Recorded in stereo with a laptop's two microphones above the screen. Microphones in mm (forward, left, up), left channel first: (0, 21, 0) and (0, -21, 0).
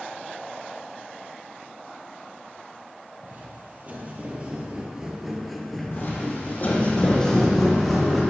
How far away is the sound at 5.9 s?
About 2 m.